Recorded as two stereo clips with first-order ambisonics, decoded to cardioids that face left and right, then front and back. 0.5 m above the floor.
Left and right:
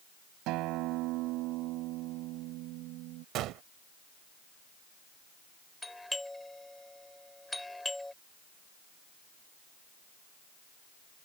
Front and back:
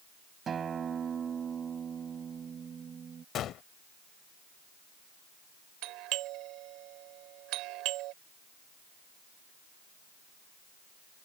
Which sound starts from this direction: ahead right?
A gunshot, at 3.4 s.